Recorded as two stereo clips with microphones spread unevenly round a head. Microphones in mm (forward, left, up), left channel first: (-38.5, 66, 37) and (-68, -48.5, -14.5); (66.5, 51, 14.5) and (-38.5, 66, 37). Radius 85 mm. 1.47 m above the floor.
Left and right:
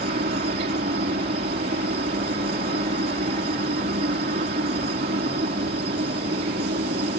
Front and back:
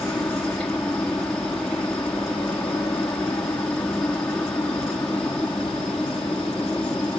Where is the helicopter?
90° right.